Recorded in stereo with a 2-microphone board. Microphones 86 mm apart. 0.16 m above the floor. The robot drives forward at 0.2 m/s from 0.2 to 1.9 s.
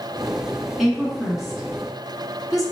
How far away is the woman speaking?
About 2.0 m.